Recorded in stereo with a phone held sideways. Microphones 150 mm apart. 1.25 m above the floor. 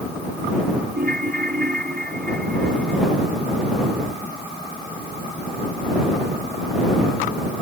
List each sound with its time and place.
0.9 s a ringtone: 90° right